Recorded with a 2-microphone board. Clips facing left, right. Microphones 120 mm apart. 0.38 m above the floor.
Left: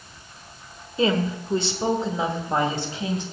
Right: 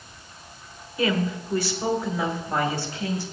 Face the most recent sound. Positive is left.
turn(degrees=20)  # may be behind; listen again after turning